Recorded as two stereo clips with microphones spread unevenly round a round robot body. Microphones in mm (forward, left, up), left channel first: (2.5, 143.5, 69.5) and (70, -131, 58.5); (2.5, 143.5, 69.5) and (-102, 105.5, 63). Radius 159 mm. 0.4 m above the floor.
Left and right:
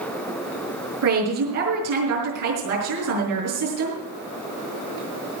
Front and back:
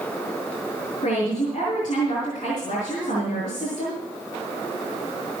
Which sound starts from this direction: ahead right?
A woman speaking, at 1.0 s.